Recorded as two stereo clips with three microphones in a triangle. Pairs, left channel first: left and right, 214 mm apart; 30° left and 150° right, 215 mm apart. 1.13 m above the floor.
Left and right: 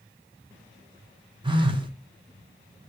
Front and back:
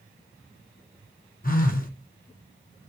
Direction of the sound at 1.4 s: 25° right.